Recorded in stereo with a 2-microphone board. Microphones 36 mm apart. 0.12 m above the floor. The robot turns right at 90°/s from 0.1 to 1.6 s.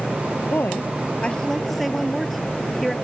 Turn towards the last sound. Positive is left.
turn(degrees=175)